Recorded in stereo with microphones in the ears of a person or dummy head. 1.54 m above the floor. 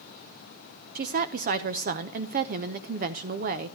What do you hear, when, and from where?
0.9 s a woman speaking: 35° right (ahead or behind), 0.7 m